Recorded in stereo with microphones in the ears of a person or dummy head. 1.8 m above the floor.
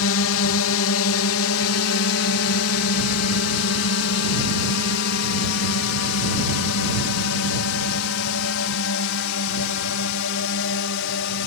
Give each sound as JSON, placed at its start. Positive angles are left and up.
{"t": 0.0, "sound": "a drone", "side_deg": 70}